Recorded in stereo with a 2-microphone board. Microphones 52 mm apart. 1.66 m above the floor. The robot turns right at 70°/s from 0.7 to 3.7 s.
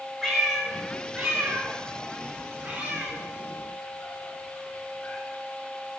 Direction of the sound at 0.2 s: 10° left (ahead or behind).